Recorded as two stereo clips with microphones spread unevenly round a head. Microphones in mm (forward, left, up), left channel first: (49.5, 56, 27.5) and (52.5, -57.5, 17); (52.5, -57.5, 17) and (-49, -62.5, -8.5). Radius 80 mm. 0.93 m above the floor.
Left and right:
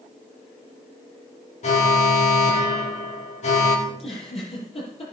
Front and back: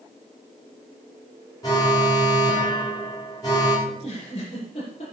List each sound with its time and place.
1.6 s an alarm: 75° left, 3.5 m
3.9 s a giggle: 60° left, 7 m